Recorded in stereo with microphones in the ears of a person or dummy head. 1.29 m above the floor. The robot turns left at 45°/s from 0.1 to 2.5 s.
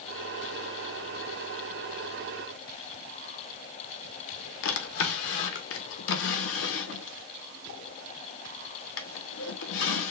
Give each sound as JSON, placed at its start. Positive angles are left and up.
{"t": 4.6, "sound": "a drawer", "side_deg": 65, "distance_m": 0.7}